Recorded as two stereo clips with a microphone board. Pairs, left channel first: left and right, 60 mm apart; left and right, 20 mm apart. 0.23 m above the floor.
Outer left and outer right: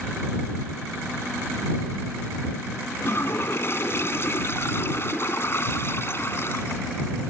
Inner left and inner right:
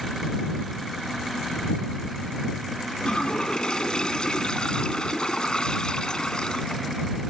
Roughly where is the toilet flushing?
Left.